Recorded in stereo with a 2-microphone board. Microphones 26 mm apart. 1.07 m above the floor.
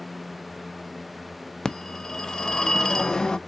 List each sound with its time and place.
1.6 s a phone ringing: 25° left (ahead or behind), 0.5 m